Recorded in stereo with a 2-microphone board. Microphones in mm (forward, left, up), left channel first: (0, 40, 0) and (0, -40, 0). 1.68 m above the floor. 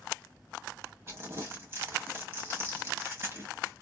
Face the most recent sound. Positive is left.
turn(degrees=-30)  # may be behind; listen again after turning